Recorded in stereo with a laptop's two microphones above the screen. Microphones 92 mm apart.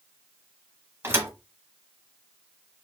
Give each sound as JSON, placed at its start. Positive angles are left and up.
{"t": 1.0, "sound": "a thud", "side_deg": -25, "distance_m": 0.9}